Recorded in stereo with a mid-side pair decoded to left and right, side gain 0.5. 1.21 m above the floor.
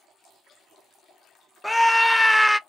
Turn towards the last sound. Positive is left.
turn(degrees=5)